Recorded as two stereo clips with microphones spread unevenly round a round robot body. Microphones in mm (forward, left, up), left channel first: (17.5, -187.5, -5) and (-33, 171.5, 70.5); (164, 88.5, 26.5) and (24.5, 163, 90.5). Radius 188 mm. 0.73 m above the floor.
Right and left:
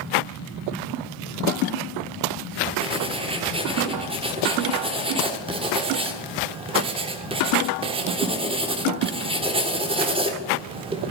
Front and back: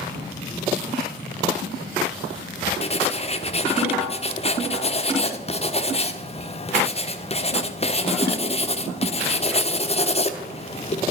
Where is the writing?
20° left, 1.3 m.